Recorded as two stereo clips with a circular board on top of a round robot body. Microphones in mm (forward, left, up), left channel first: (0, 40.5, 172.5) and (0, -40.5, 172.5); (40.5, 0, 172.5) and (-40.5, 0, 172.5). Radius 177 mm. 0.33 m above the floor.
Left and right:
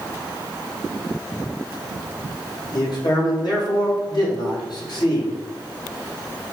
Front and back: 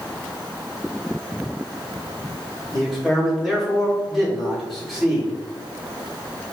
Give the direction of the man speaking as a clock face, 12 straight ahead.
9 o'clock.